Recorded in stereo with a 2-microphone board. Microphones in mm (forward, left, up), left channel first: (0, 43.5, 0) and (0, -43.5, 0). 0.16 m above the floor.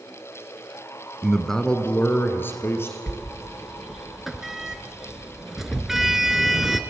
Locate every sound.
1.2 s a man speaking: 5° right (ahead or behind), 1.0 m; by 3.0 s 30° left (ahead or behind), 3 m
3.1 s a sliding door: 5° right (ahead or behind), 0.9 m